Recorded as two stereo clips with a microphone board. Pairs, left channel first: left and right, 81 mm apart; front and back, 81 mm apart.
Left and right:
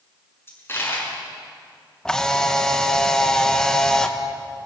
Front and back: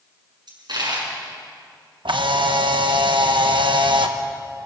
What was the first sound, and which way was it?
A dropped coin, 150° left.